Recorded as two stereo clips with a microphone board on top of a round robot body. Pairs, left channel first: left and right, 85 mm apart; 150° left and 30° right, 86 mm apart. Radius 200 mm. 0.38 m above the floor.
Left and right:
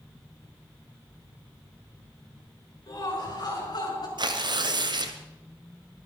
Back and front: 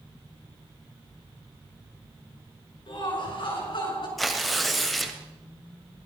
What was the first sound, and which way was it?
Laughter, 135° left.